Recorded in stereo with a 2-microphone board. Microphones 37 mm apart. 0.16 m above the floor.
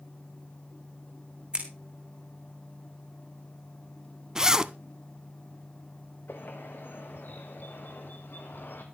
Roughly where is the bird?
Left.